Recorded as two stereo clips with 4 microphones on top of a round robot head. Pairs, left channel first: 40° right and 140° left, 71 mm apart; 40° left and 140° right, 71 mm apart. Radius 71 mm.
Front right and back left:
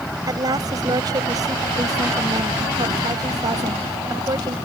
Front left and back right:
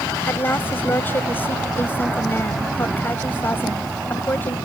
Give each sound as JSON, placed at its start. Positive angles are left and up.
{"t": 0.3, "sound": "a woman speaking", "azimuth_deg": 100}